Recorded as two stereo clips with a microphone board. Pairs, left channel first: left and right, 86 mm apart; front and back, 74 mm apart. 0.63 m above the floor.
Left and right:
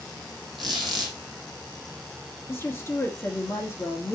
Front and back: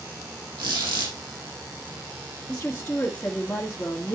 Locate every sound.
0.6 s a squeak: straight behind, 4 m
2.5 s a woman speaking: 55° left, 1.4 m